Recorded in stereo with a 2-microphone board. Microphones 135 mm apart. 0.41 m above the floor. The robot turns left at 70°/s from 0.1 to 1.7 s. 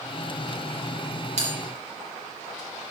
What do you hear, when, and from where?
1.4 s a bell: 60° right (ahead or behind), 4 m; by 1.5 s 50° right (ahead or behind), 4 m